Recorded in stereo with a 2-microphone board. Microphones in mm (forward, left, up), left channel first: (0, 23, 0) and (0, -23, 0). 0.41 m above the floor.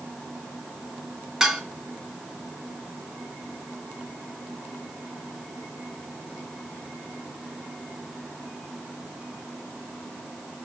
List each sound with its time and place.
1.4 s dishes clattering: 15° right (ahead or behind), 2.5 m